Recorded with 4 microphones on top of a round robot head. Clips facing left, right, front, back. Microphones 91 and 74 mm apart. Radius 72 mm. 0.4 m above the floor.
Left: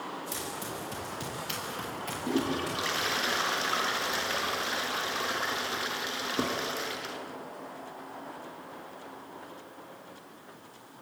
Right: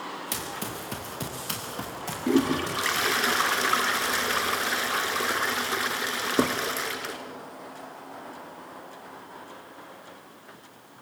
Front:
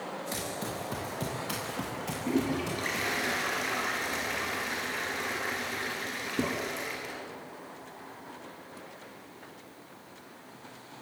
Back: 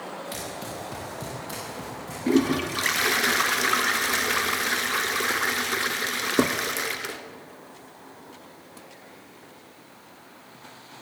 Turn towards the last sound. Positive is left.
turn(degrees=-145)